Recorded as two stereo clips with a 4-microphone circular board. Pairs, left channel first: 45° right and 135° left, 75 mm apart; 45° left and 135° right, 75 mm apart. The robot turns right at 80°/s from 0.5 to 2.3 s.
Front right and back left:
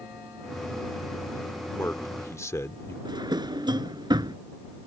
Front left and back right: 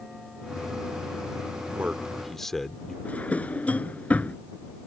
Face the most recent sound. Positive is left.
turn(degrees=115)